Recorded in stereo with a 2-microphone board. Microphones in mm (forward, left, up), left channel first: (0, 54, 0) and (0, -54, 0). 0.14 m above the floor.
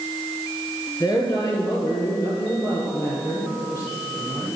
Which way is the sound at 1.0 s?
30° left (ahead or behind).